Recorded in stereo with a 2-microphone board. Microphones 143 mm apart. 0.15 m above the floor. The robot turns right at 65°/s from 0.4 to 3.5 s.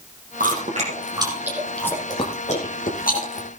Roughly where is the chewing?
Right.